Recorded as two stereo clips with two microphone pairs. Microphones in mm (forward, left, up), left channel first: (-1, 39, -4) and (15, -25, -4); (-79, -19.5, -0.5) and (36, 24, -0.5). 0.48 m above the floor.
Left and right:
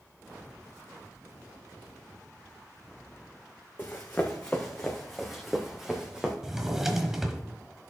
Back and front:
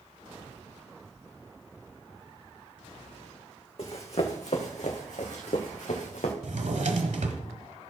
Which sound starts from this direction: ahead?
A drawer, at 6.4 s.